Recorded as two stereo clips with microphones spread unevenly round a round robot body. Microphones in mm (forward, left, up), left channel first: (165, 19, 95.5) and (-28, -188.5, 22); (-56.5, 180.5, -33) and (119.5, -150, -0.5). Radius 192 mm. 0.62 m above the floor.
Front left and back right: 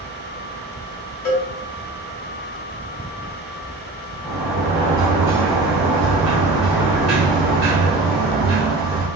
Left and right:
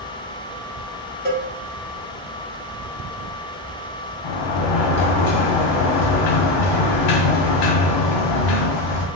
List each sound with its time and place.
1.2 s a cowbell: 40° left, 1.4 m
4.2 s a sliding door: 145° left, 0.5 m